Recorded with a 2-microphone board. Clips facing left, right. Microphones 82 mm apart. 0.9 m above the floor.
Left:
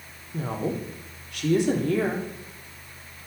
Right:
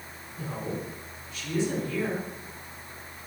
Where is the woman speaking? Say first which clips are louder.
Left 6 dB; 70° left (ahead or behind), 2 m.